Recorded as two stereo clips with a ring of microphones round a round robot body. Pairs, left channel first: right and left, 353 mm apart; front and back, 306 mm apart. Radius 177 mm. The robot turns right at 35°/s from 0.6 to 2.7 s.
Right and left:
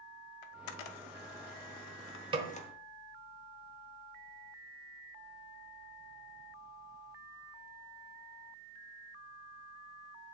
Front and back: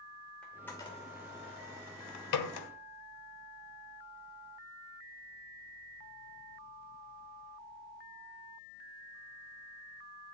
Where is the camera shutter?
85° right, 0.8 m; by 2.7 s 15° right, 0.8 m.